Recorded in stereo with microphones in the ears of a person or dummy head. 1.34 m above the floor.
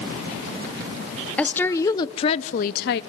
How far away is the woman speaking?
About 1.1 m.